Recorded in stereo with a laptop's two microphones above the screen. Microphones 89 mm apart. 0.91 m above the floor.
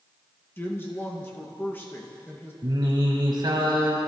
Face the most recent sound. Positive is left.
turn(degrees=-55)  # may be behind; listen again after turning